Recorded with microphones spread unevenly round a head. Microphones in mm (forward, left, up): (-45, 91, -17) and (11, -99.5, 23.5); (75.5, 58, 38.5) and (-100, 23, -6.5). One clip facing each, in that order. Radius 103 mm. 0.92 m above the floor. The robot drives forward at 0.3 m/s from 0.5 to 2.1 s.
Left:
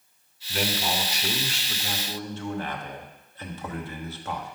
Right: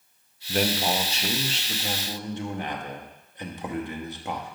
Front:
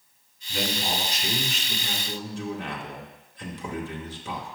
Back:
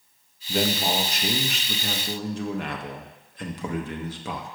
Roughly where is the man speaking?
Behind right.